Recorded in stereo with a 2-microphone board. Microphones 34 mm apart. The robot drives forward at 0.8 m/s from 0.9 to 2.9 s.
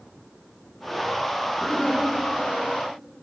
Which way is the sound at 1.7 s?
25° left (ahead or behind).